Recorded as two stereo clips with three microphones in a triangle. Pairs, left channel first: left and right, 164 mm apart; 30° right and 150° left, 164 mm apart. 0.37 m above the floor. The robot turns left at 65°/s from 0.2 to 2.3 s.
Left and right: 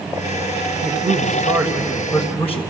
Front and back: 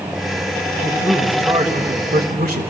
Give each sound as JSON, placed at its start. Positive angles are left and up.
{"t": 0.8, "sound": "a man speaking", "azimuth_deg": -95, "distance_m": 1.5}